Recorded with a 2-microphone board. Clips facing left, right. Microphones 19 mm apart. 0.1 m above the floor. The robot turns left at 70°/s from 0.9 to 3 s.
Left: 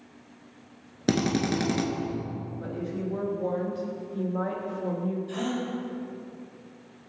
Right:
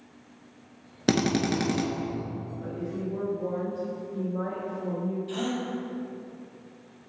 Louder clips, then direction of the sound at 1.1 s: Right 1 dB; 15° right (ahead or behind).